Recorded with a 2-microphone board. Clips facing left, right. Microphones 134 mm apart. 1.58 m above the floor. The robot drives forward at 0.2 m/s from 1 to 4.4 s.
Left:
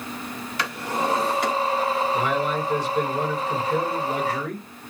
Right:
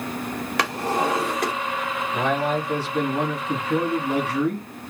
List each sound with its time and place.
0.6 s a drawer: 70° right (ahead or behind), 2.5 m
2.1 s a man speaking: 75° right (ahead or behind), 2.5 m; by 4.7 s 80° right, 2.5 m